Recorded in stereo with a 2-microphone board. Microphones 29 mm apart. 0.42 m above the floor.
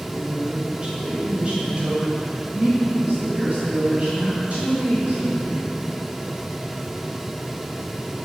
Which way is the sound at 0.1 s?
15° right (ahead or behind).